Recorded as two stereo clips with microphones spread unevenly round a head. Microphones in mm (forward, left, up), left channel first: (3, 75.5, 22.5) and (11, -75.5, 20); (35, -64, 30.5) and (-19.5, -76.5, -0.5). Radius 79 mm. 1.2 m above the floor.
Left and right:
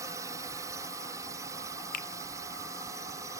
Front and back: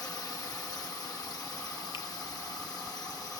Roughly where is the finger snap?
Ahead left.